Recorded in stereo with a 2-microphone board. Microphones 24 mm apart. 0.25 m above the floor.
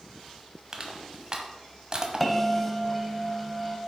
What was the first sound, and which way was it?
Crushing, 35° right (ahead or behind).